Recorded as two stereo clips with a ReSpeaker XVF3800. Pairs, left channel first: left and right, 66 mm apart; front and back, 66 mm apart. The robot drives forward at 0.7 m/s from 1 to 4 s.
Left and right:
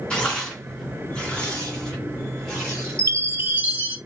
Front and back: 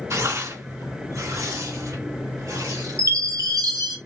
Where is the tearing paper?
160° left, 2.5 m; by 3.0 s 170° left, 3.5 m.